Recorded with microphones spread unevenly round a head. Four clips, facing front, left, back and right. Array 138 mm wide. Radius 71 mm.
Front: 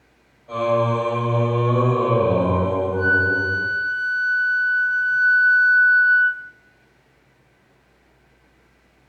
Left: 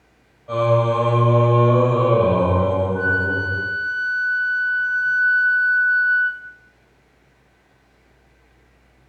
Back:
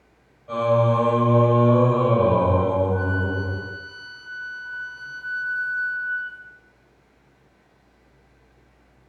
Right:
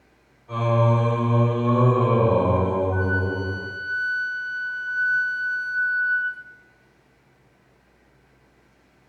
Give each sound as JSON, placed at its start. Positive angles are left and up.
{"t": 0.5, "sound": "singing", "azimuth_deg": 85, "distance_m": 5.0}
{"t": 2.9, "sound": "a flute", "azimuth_deg": 160, "distance_m": 3.0}